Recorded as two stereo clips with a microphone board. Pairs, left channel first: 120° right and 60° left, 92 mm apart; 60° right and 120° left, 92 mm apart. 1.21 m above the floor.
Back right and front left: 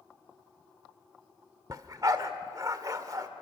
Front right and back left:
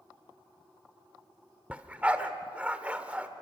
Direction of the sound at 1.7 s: 55° left.